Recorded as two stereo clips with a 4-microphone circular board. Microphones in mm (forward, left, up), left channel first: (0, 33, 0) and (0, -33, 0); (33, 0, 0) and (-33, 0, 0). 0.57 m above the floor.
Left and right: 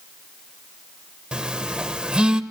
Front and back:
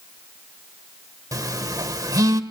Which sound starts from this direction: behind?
A phone buzzing, at 1.3 s.